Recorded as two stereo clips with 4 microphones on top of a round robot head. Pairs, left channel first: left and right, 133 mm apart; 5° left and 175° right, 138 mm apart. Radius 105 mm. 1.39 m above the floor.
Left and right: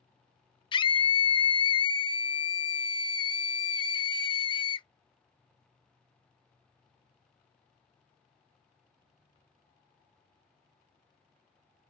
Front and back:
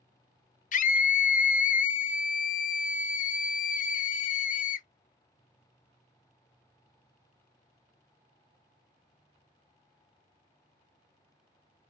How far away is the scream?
About 0.5 m.